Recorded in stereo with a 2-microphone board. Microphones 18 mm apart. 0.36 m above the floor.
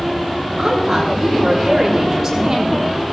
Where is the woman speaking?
25° right (ahead or behind), 9 m.